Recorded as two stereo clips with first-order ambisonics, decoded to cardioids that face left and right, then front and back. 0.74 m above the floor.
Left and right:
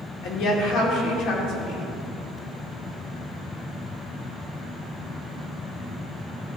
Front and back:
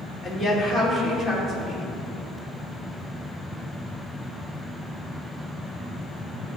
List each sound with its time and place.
0.2 s a woman speaking: 95° left, 2.5 m